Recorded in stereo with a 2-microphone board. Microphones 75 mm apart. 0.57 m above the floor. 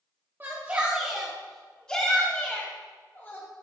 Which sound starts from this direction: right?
A shout, at 0.4 s.